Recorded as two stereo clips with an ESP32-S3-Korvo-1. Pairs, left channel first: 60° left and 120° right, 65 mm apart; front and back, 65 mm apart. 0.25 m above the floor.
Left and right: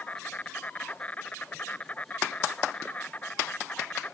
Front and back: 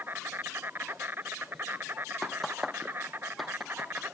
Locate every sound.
0.0 s an insect: 125° left